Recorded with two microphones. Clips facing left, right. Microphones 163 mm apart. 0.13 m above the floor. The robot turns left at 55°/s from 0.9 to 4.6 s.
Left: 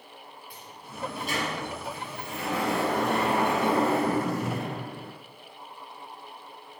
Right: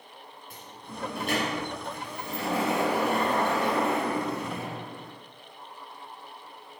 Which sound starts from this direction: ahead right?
A sliding door, at 0.5 s.